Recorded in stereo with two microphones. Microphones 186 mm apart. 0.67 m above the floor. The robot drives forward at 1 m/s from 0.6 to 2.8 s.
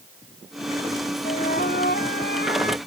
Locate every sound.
1.2 s a flute: 55° left (ahead or behind); by 2.8 s 65° left (ahead or behind)